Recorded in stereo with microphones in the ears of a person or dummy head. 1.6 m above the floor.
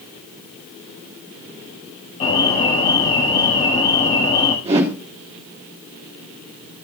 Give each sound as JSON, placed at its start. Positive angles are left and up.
{"t": 2.2, "sound": "an alarm", "side_deg": 35, "distance_m": 5.5}
{"t": 4.7, "sound": "a whoosh", "side_deg": -25, "distance_m": 3.5}